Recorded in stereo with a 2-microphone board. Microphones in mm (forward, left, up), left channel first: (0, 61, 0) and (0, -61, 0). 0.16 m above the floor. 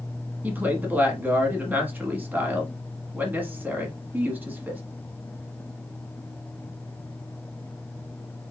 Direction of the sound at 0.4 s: 15° right (ahead or behind).